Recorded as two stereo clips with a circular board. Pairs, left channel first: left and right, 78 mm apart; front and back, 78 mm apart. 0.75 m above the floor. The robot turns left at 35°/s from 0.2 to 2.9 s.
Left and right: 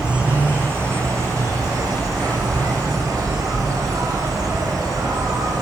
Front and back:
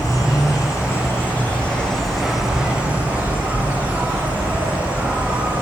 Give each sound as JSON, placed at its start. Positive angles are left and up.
{"t": 0.0, "sound": "an insect", "azimuth_deg": -20, "distance_m": 1.0}